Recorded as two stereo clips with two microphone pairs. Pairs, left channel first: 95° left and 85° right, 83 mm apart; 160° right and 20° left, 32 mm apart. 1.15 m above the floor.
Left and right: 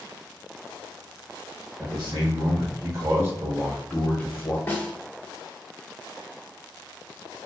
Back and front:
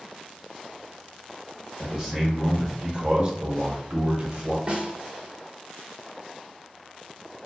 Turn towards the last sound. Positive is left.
turn(degrees=45)